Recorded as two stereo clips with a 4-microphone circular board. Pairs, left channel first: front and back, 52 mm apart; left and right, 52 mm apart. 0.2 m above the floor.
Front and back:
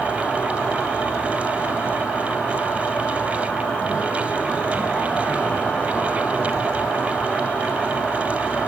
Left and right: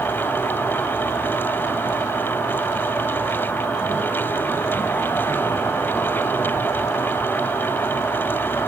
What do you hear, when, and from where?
0.0 s an insect: 65° left, 0.8 m